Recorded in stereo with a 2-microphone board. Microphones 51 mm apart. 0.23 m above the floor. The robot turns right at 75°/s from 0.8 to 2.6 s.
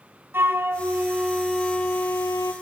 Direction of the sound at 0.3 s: 50° right.